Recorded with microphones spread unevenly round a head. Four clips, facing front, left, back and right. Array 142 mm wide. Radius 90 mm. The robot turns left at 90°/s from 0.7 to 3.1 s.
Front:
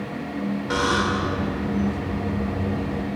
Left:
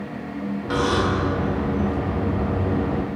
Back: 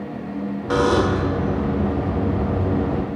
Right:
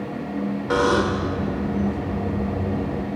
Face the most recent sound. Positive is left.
turn(degrees=15)